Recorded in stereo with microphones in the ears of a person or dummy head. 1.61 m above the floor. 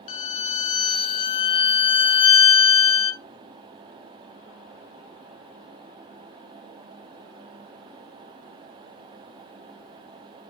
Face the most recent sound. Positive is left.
turn(degrees=40)  # may be behind; listen again after turning